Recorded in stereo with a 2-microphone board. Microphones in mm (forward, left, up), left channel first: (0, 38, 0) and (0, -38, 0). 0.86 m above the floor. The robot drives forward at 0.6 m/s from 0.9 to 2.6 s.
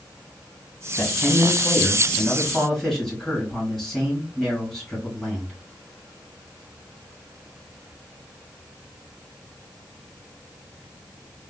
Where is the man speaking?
5° left (ahead or behind), 1.6 m.